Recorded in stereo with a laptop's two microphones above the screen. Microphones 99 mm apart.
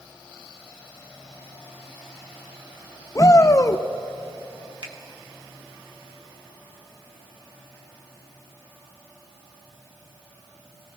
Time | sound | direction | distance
3.1 | a shout | 35° left (ahead or behind) | 0.6 m
4.8 | a finger snap | 50° right (ahead or behind) | 1.0 m